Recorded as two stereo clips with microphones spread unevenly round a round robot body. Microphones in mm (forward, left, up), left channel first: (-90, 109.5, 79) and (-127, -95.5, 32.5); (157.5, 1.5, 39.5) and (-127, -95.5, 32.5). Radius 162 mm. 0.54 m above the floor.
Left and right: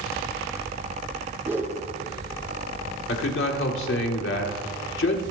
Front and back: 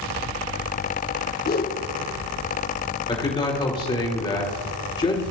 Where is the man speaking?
90° left, 2.5 m.